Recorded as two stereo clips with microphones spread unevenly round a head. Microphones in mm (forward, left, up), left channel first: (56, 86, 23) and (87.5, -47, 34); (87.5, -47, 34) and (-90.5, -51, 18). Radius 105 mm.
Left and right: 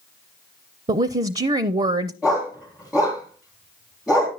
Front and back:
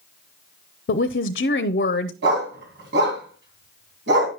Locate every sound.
0.9 s a woman speaking: 30° right, 0.6 m
2.2 s a dog barking: 160° right, 3 m